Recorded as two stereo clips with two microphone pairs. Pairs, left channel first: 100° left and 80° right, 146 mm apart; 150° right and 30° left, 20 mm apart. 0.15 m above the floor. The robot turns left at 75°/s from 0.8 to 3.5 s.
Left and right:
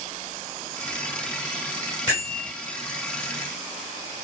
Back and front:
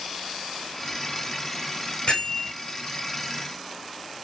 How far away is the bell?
About 2.5 m.